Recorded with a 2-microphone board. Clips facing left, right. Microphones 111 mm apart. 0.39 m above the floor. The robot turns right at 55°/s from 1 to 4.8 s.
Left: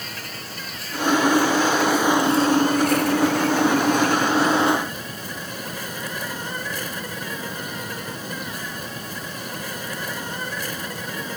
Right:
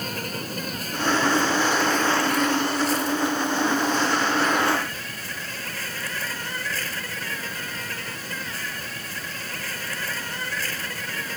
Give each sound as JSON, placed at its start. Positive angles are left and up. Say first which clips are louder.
{"t": 0.0, "sound": "an insect", "louder": "right 5 dB", "azimuth_deg": -45}